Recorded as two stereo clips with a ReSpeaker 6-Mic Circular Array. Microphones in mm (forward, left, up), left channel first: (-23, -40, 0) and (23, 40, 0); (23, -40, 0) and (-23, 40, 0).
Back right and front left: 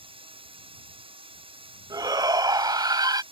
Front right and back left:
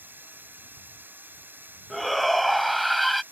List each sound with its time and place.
0.0 s running water: 50° left
1.9 s a shout: 30° left